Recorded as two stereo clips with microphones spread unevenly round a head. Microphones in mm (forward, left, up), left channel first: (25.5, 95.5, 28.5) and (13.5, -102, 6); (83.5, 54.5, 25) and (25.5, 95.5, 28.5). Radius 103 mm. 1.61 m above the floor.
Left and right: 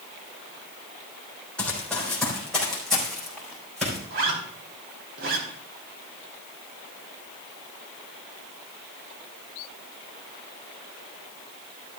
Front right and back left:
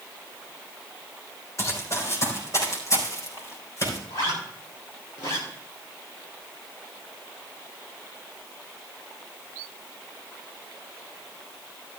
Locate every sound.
1.6 s running footsteps: 5° left, 3.5 m; by 4.0 s 5° right, 6 m
4.1 s a zipper: 65° right, 3 m